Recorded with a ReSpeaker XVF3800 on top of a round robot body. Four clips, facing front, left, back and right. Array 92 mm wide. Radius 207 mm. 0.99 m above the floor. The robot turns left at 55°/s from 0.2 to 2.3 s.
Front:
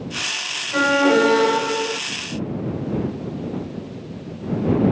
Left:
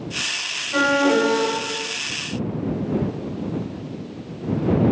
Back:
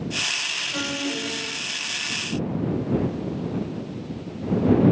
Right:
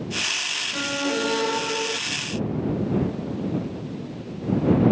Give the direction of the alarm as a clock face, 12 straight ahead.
10 o'clock.